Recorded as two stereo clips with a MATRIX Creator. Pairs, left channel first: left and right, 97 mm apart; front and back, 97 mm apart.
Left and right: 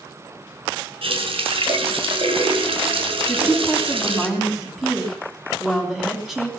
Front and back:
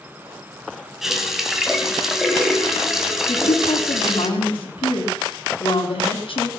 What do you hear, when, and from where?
1.0 s a running tap: 95° right, 1.8 m
3.3 s a woman speaking: 5° right, 3 m